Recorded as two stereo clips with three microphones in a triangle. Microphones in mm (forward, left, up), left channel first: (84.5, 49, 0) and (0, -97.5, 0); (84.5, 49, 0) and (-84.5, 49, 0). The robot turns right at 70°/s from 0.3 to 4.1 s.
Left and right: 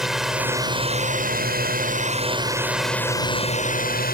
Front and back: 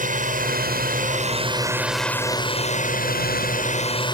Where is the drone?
155° left; by 4.2 s 60° left.